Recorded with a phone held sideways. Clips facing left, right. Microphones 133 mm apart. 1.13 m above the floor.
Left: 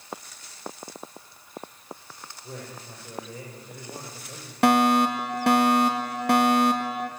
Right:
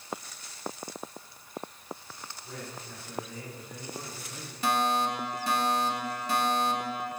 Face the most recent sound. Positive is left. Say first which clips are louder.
# left 8 dB
turn(degrees=70)  # may be behind; listen again after turning